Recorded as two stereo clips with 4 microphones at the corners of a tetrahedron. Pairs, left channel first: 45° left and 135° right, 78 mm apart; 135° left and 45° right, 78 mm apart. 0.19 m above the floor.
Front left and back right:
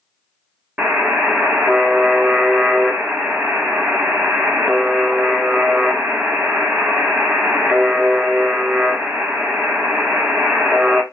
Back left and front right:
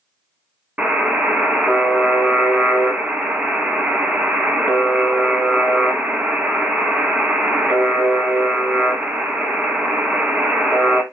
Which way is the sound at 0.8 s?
90° right.